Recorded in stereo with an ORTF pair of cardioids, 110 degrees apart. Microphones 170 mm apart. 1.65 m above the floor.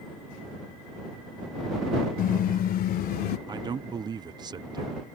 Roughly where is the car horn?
Ahead left.